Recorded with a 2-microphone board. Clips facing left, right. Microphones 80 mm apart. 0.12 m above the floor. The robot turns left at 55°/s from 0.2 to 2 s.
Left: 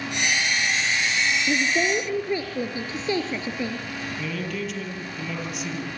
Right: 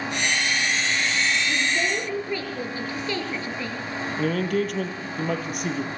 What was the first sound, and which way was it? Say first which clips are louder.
A woman speaking: left 2 dB; 40° left (ahead or behind).